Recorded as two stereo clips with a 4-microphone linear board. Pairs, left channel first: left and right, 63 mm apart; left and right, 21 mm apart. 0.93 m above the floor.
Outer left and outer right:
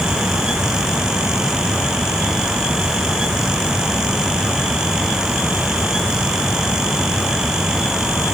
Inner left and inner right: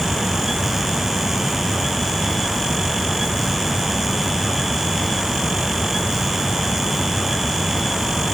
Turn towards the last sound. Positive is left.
No sound to turn to.